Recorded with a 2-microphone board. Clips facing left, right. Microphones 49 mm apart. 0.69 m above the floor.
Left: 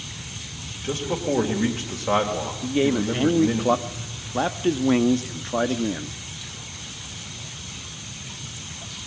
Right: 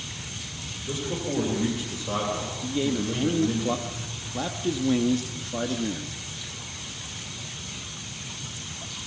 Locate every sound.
0.8 s a man speaking: 65° left (ahead or behind), 3.5 m
2.6 s a man speaking: 45° left (ahead or behind), 0.9 m